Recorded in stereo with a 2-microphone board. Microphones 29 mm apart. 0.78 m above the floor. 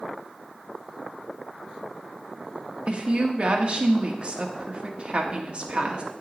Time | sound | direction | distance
2.9 | a woman speaking | 35° right (ahead or behind) | 1.2 m